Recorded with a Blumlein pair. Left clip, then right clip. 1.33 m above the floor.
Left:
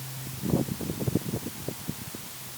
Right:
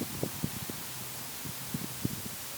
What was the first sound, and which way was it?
Only background noise.